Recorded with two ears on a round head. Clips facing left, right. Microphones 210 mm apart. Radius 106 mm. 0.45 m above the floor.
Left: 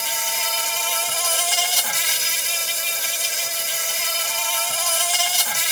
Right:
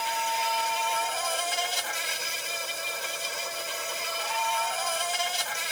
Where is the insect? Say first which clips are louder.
Right 1 dB; 65° left (ahead or behind).